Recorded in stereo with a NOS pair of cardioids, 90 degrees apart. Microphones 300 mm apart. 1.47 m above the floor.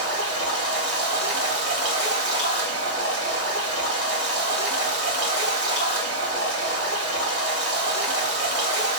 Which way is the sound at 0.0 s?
50° right.